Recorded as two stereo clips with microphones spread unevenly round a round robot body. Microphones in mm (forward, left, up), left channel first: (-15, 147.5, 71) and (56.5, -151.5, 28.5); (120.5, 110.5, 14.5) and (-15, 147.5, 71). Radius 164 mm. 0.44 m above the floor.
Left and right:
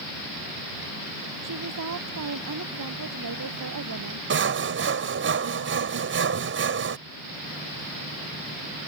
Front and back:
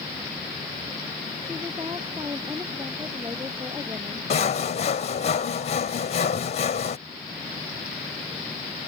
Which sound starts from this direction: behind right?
A woman speaking, at 1.4 s.